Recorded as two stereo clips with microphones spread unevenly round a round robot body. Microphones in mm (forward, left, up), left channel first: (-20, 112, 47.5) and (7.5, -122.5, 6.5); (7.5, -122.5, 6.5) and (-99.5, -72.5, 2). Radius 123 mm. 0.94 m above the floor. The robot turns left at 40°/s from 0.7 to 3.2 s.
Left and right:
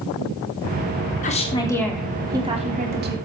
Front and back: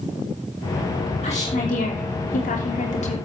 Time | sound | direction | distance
1.2 | a woman speaking | 35° left | 3 m